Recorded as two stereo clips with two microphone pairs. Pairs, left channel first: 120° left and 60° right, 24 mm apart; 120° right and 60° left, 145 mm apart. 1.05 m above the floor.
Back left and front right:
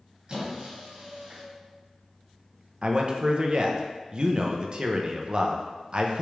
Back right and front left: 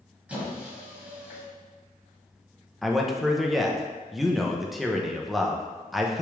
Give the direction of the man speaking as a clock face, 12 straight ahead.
1 o'clock.